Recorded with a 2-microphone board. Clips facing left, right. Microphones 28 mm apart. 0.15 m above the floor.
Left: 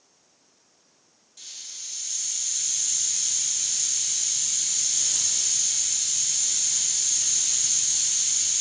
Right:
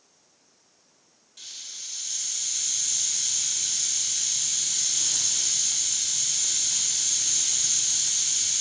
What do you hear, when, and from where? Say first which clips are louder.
1.4 s a hiss: right 1 dB; 25° right (ahead or behind), 0.6 m